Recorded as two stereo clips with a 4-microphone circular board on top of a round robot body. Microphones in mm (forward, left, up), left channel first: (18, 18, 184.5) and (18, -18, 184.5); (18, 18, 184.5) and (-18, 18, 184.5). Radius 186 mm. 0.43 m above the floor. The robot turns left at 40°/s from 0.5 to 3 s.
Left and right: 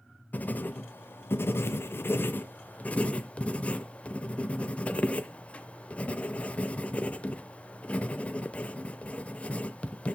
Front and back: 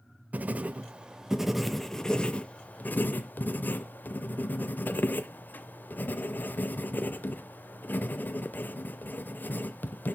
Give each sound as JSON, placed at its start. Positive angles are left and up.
{"t": 0.3, "sound": "writing", "azimuth_deg": 135, "distance_m": 0.5}